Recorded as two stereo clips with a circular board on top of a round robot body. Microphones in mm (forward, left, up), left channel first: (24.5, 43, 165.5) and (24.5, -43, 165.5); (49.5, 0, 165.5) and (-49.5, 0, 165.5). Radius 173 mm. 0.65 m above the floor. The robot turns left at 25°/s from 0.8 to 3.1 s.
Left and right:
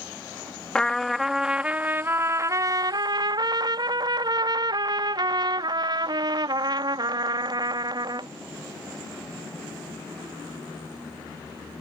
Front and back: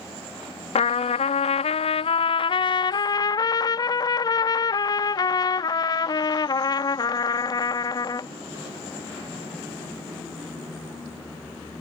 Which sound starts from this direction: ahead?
A trumpet, at 0.8 s.